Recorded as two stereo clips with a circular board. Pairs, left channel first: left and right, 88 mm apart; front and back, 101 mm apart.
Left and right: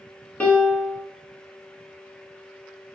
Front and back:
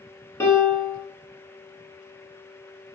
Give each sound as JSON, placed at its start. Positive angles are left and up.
{"t": 0.4, "sound": "a piano", "azimuth_deg": 30, "distance_m": 0.6}